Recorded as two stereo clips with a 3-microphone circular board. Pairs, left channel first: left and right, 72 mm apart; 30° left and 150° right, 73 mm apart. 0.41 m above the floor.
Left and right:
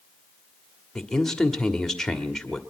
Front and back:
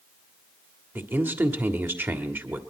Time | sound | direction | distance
0.9 | a man speaking | 170° left | 1.6 m